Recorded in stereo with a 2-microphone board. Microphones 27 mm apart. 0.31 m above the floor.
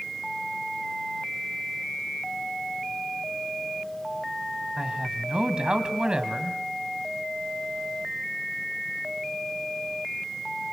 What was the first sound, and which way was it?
A man speaking, 35° right (ahead or behind).